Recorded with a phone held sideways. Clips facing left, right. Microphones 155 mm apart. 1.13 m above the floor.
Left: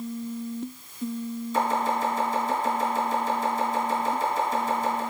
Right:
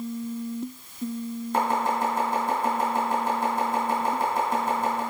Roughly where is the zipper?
No zipper in this recording.